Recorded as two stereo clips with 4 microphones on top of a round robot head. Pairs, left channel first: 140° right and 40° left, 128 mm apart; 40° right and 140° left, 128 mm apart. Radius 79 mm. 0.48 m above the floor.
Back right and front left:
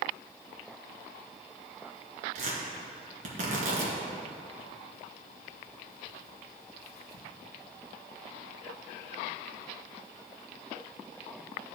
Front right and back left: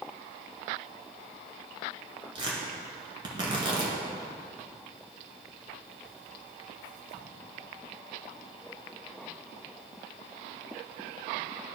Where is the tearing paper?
80° left, 1.9 m.